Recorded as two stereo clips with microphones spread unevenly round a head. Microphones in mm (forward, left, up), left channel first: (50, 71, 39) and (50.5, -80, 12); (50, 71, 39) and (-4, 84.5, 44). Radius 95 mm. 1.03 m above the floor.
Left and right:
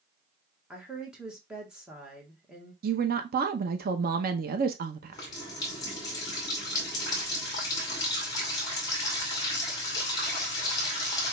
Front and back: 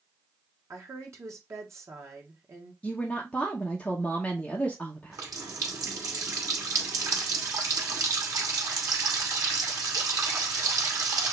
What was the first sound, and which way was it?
A woman speaking, 170° right.